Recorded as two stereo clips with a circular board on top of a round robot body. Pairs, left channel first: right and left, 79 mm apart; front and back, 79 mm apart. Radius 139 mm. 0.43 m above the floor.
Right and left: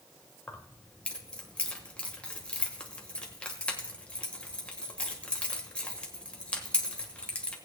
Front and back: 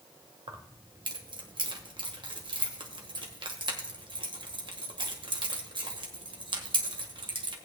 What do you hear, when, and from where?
0.5 s keys jangling: 165° right, 1.6 m